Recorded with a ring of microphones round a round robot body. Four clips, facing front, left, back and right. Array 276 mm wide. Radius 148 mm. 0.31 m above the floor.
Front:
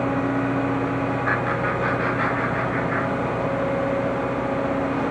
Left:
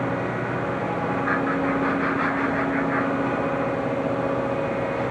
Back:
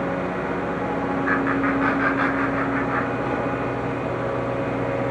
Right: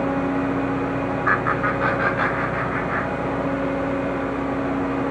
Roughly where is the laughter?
Right.